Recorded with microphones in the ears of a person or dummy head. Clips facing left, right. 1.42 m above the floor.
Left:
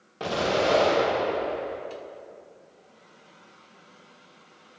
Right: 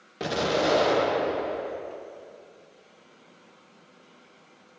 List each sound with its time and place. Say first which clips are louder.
0.2 s an explosion: left 1 dB; 20° right (ahead or behind), 1.1 m